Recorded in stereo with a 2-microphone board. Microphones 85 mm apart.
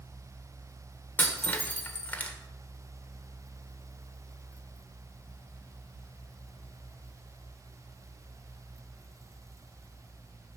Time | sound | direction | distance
1.2 | breaking glass | 20° left (ahead or behind) | 1.6 m